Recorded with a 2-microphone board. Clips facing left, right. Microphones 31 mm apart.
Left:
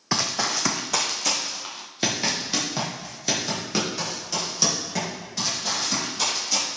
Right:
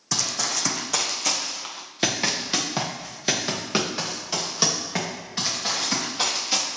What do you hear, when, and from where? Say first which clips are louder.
0.1 s running footsteps: left 2 dB; 35° left (ahead or behind), 1.0 m; by 6.6 s 35° right (ahead or behind), 5 m